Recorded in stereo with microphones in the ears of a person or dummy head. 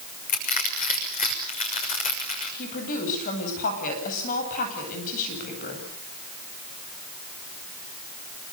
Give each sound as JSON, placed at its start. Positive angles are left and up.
{"t": 0.3, "sound": "crushing", "side_deg": 40, "distance_m": 6.5}
{"t": 2.6, "sound": "a woman speaking", "side_deg": 45, "distance_m": 9.5}